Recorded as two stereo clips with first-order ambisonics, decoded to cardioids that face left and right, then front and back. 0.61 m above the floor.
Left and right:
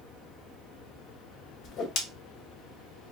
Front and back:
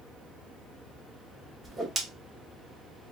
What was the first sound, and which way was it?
A whoosh, 105° left.